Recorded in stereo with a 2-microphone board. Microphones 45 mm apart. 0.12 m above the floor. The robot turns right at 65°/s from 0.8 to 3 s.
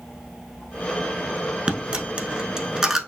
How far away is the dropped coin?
About 0.6 m.